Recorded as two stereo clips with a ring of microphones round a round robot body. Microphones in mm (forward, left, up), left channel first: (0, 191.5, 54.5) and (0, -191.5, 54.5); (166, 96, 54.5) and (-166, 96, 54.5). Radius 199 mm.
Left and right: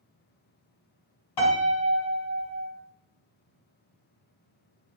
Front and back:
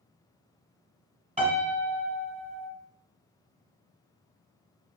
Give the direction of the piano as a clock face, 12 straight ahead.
8 o'clock.